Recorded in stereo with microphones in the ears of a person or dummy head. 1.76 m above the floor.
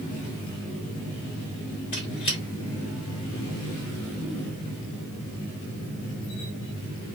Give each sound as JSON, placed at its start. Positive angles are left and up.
{"t": 1.9, "sound": "a squeak", "side_deg": 30, "distance_m": 1.4}